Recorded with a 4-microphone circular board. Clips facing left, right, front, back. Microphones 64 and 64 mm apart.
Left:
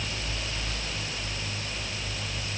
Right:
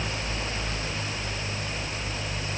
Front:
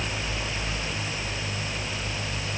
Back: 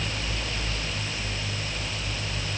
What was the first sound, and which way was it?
Only background noise.